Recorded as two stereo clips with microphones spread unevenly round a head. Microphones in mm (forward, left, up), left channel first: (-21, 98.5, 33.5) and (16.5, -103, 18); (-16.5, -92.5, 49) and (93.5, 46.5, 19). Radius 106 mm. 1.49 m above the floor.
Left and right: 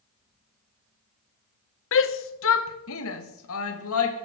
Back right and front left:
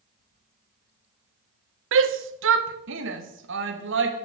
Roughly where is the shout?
Left.